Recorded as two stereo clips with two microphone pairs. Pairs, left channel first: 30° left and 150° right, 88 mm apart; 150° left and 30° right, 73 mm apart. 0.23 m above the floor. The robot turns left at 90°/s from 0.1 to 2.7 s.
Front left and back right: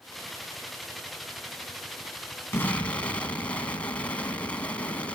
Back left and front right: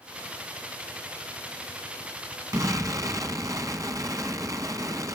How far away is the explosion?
About 1.3 m.